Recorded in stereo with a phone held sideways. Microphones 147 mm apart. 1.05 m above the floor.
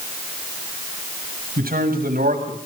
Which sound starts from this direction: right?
A man speaking, at 1.6 s.